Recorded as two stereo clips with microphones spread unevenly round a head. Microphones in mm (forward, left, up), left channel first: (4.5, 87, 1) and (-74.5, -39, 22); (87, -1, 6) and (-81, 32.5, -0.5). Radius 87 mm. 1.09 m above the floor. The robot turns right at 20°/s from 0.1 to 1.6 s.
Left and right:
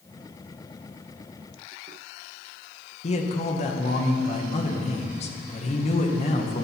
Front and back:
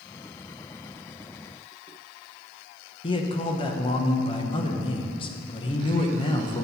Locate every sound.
3.0 s a man speaking: 45° left, 1.1 m